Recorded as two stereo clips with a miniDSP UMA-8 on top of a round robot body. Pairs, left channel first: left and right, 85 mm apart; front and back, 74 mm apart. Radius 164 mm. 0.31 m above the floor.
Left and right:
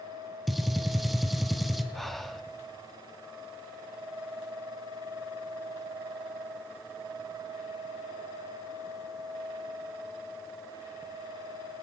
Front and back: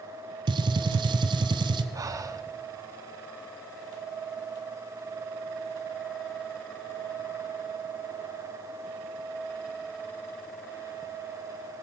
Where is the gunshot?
Straight behind, 0.8 m.